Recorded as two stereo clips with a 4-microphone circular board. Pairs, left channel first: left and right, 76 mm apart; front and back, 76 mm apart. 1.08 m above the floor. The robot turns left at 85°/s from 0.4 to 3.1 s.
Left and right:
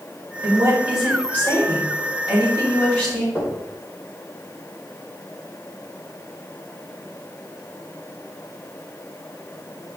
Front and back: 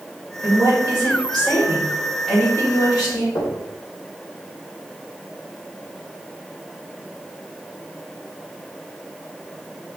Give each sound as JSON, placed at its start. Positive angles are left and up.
{"t": 0.4, "sound": "a woman speaking", "azimuth_deg": -120, "distance_m": 4.5}
{"t": 3.4, "sound": "knocking", "azimuth_deg": 20, "distance_m": 3.5}